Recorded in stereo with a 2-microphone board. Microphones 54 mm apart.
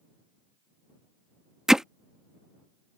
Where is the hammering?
10° right (ahead or behind).